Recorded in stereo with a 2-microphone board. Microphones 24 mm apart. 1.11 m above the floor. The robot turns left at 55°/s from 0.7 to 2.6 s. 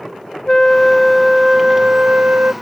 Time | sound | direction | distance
0.5 | a flute | 20° left | ?